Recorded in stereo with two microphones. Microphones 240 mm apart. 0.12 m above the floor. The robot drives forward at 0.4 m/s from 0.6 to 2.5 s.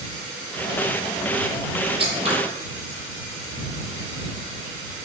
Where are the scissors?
25° right (ahead or behind), 1.4 m.